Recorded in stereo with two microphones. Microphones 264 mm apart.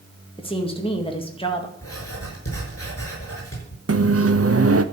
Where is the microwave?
60° right (ahead or behind), 0.8 m.